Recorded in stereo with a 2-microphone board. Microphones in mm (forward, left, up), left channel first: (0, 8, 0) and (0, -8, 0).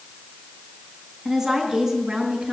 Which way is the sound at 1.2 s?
20° right (ahead or behind).